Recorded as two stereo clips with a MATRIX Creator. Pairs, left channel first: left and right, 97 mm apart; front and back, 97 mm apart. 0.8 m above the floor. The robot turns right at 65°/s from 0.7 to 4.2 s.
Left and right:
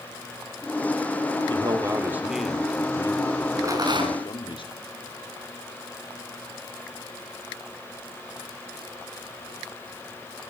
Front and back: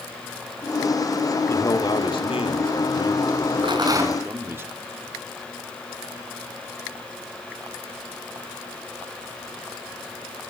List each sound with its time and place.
1.5 s a man speaking: 60° right, 2.5 m; by 4.6 s 115° left, 2.5 m
3.6 s a rattle: 150° right, 5.5 m; by 4.3 s 110° right, 5.5 m